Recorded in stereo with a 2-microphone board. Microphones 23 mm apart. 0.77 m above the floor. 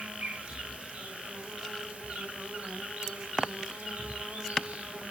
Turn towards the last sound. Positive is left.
turn(degrees=-80)